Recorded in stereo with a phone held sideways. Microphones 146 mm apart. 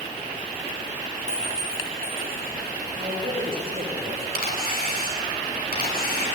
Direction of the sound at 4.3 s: 70° left (ahead or behind).